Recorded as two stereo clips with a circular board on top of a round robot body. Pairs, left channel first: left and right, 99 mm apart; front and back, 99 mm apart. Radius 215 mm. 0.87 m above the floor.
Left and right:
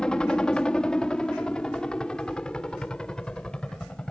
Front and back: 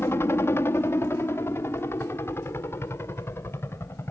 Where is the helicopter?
20° left.